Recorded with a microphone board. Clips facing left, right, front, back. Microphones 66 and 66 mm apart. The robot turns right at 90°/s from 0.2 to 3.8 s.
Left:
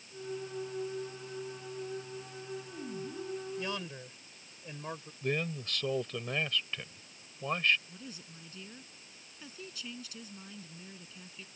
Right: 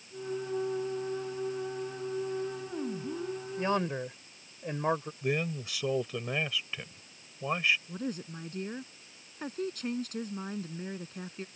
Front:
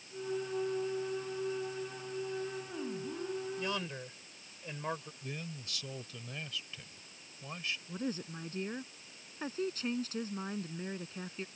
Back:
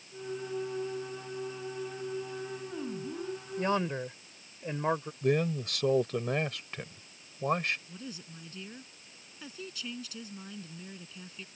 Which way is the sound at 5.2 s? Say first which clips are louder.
Left 3 dB, back 16 dB; 170° right.